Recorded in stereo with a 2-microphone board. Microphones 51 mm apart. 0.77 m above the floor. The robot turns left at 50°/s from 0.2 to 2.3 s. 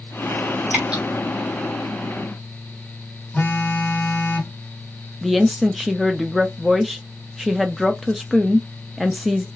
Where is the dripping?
30° right (ahead or behind), 1.1 m; by 1.0 s 15° right (ahead or behind), 1.1 m.